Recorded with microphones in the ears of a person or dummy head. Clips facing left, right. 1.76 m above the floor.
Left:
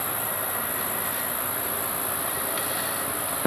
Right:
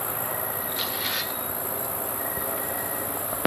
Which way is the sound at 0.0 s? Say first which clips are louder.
Right 1 dB; 85° left.